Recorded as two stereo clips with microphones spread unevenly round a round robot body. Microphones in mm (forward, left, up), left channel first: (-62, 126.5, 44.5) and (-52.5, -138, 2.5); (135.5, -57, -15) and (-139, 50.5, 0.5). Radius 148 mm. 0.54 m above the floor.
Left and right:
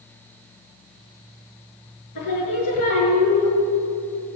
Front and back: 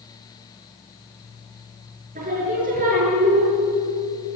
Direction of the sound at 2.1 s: 95° left.